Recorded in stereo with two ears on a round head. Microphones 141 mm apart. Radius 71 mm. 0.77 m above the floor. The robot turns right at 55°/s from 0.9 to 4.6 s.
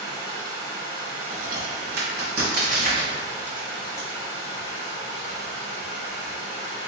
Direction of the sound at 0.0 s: 155° right.